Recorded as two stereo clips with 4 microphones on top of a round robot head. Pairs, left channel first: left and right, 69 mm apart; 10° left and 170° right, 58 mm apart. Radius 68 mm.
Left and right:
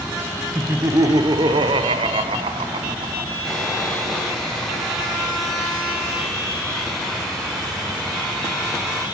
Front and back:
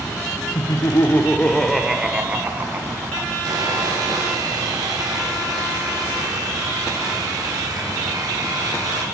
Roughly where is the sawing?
Behind.